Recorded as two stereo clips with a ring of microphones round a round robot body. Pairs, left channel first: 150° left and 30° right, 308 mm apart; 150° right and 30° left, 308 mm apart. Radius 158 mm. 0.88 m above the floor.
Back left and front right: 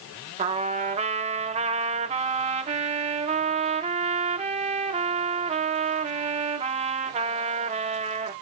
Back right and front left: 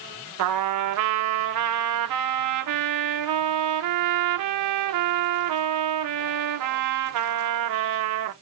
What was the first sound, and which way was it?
A trumpet, 35° left.